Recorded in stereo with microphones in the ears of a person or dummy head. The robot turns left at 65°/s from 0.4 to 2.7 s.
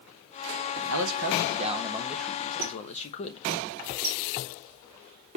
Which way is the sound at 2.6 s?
45° right (ahead or behind).